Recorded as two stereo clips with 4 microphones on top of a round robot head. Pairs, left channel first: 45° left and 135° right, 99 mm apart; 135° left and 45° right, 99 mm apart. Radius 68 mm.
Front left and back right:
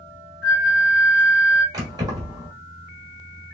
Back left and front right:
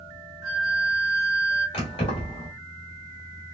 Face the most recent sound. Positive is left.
turn(degrees=170)